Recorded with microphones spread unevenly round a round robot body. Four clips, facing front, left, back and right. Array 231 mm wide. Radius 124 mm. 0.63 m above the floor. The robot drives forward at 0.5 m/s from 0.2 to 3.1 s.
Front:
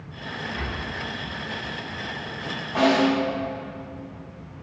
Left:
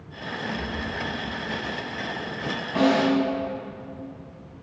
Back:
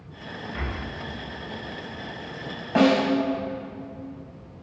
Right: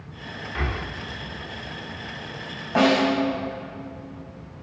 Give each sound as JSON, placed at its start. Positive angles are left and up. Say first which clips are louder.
{"t": 0.6, "sound": "breathing", "louder": "right 1 dB, front 1 dB", "azimuth_deg": -80, "distance_m": 1.3}
{"t": 2.8, "sound": "a snare drum", "louder": "right 1 dB, even", "azimuth_deg": -175, "distance_m": 5.0}